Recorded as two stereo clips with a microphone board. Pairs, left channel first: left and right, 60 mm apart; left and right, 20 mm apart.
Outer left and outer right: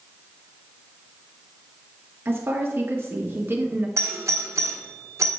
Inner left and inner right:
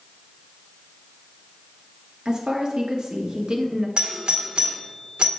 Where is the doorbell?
55° right (ahead or behind), 1.6 m.